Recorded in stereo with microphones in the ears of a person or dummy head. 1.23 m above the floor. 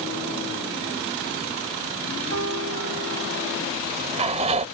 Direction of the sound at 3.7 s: 35° right (ahead or behind).